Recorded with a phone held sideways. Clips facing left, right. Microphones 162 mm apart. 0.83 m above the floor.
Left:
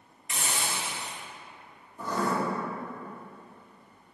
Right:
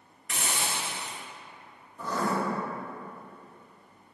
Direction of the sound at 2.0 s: 15° left (ahead or behind).